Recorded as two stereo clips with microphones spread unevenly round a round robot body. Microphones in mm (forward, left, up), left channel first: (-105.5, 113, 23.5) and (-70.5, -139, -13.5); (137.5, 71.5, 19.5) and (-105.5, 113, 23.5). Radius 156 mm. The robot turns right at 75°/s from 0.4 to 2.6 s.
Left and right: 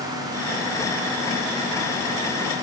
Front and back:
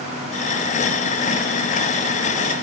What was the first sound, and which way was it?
Only background noise.